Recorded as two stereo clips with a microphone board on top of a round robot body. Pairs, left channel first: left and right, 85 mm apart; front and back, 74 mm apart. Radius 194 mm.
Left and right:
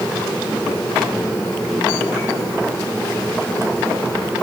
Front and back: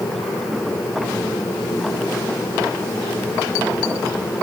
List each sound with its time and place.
Only background noise.